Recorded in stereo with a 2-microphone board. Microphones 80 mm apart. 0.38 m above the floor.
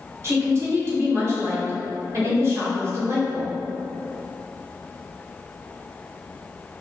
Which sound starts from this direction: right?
A woman speaking, at 0.2 s.